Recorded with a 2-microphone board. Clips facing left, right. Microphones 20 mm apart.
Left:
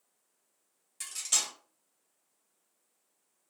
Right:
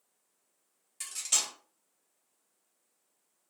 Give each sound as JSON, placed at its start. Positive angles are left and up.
{"t": 1.0, "sound": "cutlery clinking", "side_deg": -5, "distance_m": 1.0}